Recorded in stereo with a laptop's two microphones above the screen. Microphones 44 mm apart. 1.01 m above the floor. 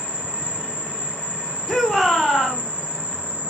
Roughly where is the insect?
Left.